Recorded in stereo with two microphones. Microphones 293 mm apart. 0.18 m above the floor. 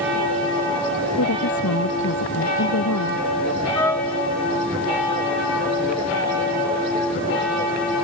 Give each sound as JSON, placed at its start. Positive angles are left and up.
{"t": 1.2, "sound": "a woman speaking", "side_deg": 75}
{"t": 3.8, "sound": "a trumpet", "side_deg": 10}